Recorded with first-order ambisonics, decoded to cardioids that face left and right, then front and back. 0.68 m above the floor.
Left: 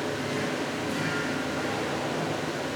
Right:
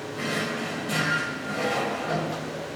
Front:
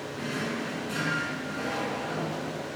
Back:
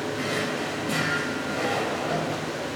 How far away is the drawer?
About 1.3 m.